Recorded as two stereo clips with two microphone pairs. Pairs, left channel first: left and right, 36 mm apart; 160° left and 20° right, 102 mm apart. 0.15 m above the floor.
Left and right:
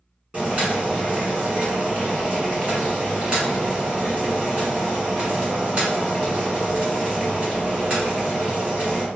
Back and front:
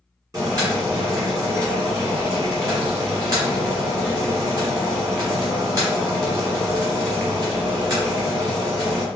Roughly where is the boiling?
Ahead right.